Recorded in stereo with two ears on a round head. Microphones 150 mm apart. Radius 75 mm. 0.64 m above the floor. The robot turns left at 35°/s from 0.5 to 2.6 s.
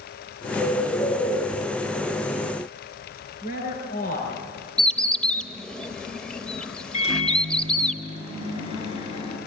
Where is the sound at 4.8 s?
5° left (ahead or behind), 0.8 m.